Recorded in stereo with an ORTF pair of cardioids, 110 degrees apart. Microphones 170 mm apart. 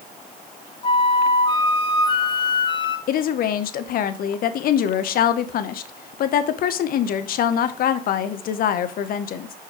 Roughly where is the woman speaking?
Ahead left.